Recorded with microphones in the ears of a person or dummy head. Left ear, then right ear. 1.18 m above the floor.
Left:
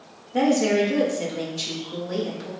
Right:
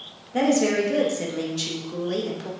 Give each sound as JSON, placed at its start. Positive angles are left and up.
{"t": 0.3, "sound": "a woman speaking", "side_deg": -15, "distance_m": 0.7}